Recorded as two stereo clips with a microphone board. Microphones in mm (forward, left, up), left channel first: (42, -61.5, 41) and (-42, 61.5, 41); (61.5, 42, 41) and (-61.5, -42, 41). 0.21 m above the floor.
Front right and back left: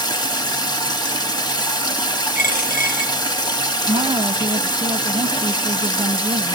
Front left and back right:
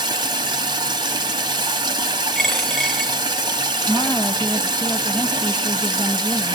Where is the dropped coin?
55° right, 0.8 m.